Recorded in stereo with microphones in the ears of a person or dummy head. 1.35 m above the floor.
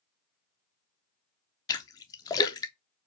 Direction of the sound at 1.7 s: 20° left (ahead or behind).